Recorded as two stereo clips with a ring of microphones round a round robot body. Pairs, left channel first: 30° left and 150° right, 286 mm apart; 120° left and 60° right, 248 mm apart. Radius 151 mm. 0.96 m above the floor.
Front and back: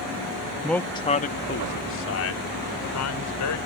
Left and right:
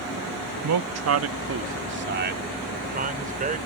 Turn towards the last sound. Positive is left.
turn(degrees=0)